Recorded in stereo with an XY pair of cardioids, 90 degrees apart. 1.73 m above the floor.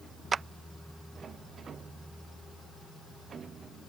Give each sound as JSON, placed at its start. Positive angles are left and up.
{"t": 0.3, "sound": "a clap", "azimuth_deg": -45}